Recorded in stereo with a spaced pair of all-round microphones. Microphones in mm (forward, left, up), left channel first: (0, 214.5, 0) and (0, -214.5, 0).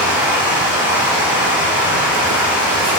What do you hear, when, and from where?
0.0 s running water: 10° right (ahead or behind), 1.1 m